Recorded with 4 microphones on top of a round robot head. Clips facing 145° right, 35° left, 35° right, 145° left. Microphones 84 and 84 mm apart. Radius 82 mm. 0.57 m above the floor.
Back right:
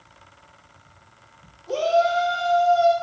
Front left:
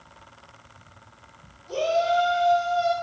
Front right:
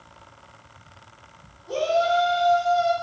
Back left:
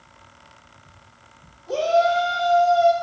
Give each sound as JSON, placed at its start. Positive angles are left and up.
{"t": 1.7, "sound": "a shout", "azimuth_deg": -135, "distance_m": 3.0}